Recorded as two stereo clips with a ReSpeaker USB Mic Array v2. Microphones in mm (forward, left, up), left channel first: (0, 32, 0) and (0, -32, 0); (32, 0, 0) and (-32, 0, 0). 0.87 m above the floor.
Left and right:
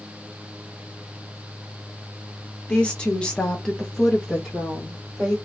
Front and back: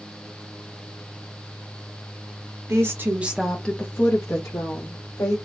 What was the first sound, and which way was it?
A woman speaking, 165° left.